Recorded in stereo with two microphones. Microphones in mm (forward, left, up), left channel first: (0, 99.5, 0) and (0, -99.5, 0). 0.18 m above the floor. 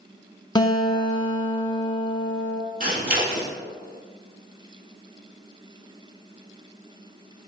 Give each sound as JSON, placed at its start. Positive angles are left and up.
{"t": 0.6, "sound": "a guitar", "side_deg": 20, "distance_m": 0.5}
{"t": 2.8, "sound": "scissors", "side_deg": -45, "distance_m": 1.0}